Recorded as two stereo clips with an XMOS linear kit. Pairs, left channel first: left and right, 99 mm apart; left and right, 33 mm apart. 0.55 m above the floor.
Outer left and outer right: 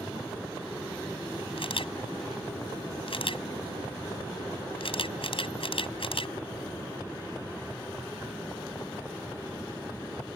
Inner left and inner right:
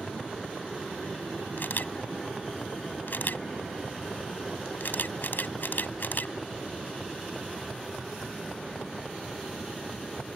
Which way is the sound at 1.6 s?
60° left (ahead or behind).